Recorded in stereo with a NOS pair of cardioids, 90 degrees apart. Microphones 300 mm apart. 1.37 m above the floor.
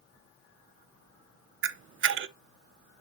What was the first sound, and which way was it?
A camera shutter, 45° right.